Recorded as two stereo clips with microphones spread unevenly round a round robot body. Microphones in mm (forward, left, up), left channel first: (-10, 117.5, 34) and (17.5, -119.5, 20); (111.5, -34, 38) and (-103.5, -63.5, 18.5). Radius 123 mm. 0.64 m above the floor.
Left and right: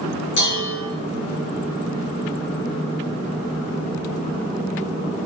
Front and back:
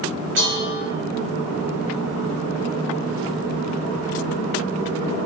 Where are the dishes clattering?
140° left, 6 m.